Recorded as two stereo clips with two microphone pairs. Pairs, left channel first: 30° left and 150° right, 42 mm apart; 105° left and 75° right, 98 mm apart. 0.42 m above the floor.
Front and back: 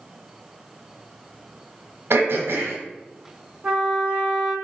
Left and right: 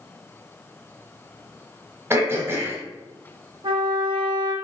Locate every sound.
2.1 s throat clearing: 145° right, 1.0 m
3.6 s a trumpet: 90° right, 0.9 m